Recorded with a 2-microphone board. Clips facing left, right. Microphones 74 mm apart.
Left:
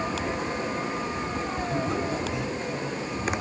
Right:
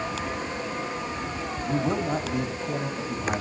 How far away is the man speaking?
About 1.8 m.